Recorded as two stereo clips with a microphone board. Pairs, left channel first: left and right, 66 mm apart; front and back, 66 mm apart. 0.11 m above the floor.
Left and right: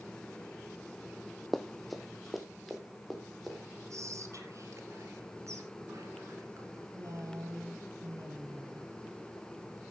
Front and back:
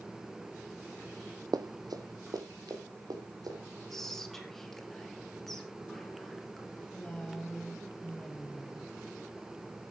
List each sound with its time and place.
1.5 s running footsteps: straight behind, 0.7 m
3.9 s whispering: 80° right, 2.5 m
6.8 s a woman speaking: 70° right, 3.5 m